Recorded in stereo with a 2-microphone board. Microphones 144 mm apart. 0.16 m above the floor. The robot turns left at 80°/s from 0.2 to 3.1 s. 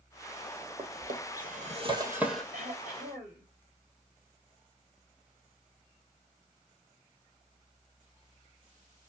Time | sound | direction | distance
0.8 | a drawer | 55° right (ahead or behind) | 1.1 m
2.5 | throat clearing | 105° right | 3.5 m